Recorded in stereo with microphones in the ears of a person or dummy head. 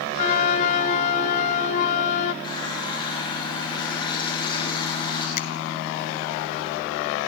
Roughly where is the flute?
Left.